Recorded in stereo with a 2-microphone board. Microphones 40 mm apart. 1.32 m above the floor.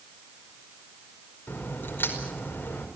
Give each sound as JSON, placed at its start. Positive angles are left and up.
{"t": 1.5, "sound": "a crack", "side_deg": 70, "distance_m": 5.0}